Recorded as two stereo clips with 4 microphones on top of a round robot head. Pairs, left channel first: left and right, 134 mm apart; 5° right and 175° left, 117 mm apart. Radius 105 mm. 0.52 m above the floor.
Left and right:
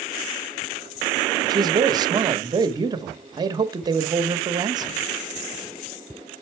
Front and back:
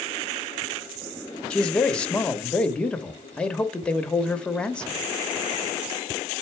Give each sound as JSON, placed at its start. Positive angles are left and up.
{"t": 1.5, "sound": "a man speaking", "azimuth_deg": -80, "distance_m": 0.8}